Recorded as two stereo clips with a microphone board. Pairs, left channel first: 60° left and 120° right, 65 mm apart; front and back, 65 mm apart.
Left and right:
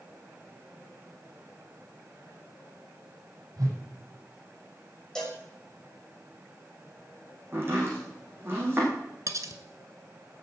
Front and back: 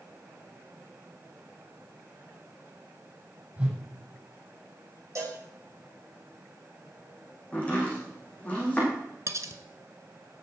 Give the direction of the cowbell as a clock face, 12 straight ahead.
7 o'clock.